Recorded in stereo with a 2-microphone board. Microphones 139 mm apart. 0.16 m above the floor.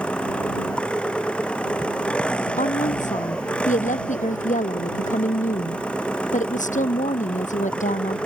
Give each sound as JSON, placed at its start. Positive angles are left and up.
{"t": 0.0, "sound": "an engine running", "side_deg": 5}
{"t": 2.6, "sound": "a woman speaking", "side_deg": 60}